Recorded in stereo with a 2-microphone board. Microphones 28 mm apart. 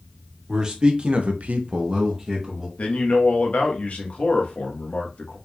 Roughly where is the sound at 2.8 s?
Left.